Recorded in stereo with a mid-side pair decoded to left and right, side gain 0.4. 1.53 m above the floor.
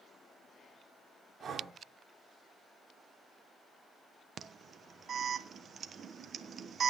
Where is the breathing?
50° right, 3.5 m.